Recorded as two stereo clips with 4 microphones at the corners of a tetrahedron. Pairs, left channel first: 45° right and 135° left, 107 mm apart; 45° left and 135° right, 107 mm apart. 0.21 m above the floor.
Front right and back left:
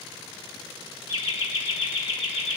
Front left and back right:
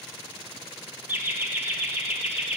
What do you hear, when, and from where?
1.1 s laughter: 65° right, 3 m